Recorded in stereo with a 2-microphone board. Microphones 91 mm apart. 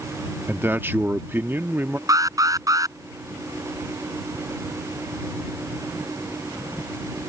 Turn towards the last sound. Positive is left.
turn(degrees=-40)  # may be behind; listen again after turning